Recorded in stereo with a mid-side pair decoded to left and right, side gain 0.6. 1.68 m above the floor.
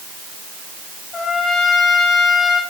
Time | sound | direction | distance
1.1 | a trumpet | 40° left | 4.5 m